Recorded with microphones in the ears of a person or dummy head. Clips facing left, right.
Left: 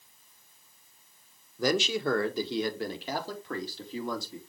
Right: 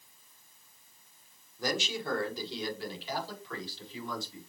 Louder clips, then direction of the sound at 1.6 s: Left 7 dB; 60° left (ahead or behind).